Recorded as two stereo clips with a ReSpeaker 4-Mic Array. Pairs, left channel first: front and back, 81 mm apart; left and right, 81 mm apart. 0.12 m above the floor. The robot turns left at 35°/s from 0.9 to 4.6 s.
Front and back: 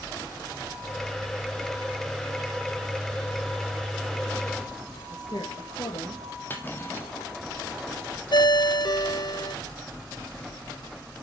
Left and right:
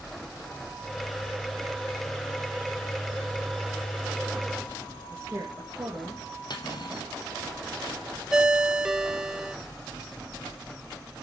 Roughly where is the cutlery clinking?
Ahead left.